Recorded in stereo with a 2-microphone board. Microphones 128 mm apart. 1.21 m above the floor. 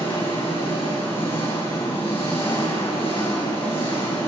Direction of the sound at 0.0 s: 45° left (ahead or behind).